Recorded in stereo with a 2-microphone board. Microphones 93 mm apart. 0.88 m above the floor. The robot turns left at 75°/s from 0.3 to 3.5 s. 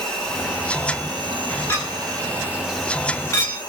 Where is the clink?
25° left (ahead or behind), 1.3 m; by 3.6 s 20° left (ahead or behind), 1.3 m.